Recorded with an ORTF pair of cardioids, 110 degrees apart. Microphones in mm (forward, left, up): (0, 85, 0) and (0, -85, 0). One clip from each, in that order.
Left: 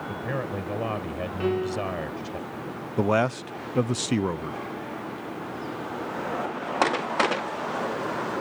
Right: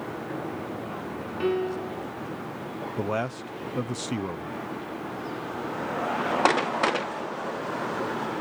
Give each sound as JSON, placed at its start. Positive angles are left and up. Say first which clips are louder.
{"t": 0.1, "sound": "a man speaking", "louder": "left 3 dB", "azimuth_deg": 65}
{"t": 1.4, "sound": "a piano", "louder": "even", "azimuth_deg": 0}
{"t": 3.0, "sound": "a man speaking", "louder": "left 7 dB", "azimuth_deg": 30}